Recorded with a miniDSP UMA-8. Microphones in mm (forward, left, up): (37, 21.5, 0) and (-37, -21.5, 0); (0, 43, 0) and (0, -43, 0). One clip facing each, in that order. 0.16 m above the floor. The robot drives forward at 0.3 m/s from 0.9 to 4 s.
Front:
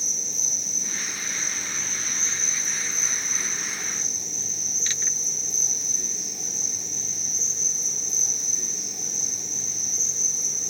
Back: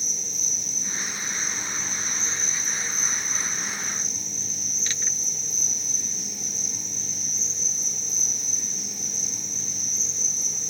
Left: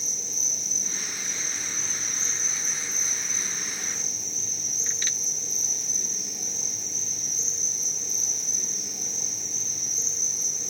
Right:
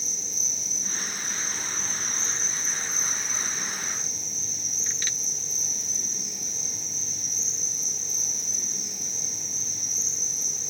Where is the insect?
55° left, 9.5 m; by 10.7 s 60° left, 9 m.